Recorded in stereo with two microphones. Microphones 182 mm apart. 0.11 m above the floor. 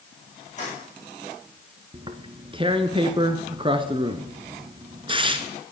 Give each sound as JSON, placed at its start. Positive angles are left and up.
{"t": 0.6, "sound": "keys jangling", "side_deg": 40, "distance_m": 6.5}
{"t": 1.9, "sound": "tearing paper", "side_deg": -30, "distance_m": 0.9}